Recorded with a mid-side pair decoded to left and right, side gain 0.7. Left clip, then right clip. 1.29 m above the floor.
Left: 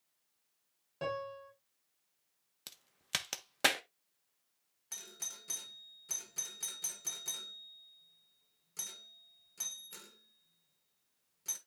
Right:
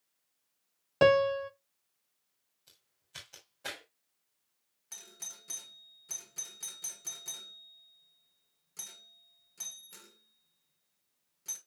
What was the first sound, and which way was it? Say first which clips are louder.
A piano: right 16 dB; 60° right.